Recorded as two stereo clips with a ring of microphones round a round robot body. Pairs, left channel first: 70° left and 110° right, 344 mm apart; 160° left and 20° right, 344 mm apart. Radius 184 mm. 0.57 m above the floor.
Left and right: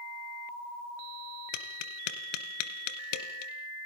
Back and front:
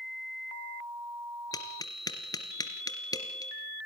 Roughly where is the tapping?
Left.